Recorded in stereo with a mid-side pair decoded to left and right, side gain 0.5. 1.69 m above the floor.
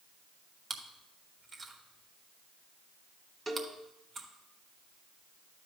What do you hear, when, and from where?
0.7 s chewing: 35° right, 1.5 m
3.5 s a cowbell: 30° right, 1.8 m